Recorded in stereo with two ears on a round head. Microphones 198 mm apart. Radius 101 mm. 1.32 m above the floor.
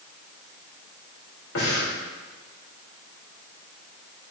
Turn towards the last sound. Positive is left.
turn(degrees=65)  # may be behind; listen again after turning